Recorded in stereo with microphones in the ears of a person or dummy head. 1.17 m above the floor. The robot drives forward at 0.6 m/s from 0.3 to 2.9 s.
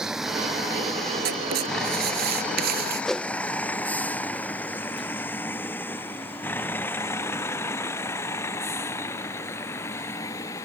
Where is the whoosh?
Centre (ahead or behind).